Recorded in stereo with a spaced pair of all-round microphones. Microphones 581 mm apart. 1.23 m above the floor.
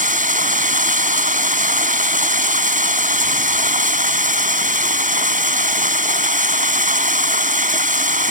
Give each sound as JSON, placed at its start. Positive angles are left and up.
{"t": 0.0, "sound": "running water", "side_deg": -15}